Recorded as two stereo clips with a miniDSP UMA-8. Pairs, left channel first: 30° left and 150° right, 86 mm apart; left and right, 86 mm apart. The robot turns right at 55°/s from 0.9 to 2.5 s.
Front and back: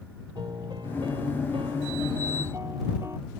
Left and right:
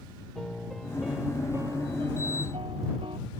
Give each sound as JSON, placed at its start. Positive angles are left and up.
{"t": 0.3, "sound": "a piano", "azimuth_deg": 175}